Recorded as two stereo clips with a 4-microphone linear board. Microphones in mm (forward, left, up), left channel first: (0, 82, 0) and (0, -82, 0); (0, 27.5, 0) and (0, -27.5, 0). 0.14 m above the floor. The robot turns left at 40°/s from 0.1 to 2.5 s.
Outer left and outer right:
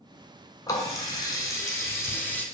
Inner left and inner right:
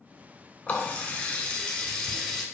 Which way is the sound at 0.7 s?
25° left (ahead or behind).